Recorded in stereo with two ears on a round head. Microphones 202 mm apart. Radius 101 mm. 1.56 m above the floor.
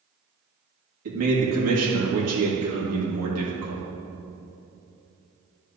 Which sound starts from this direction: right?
A man speaking, at 1.1 s.